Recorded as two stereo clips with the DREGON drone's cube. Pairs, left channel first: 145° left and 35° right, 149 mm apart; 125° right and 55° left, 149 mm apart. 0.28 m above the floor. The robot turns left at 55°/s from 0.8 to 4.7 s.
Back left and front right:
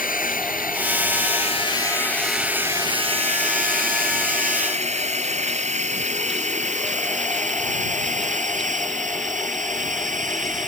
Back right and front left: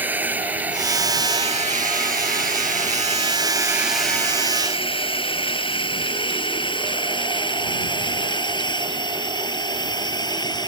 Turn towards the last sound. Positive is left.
turn(degrees=-65)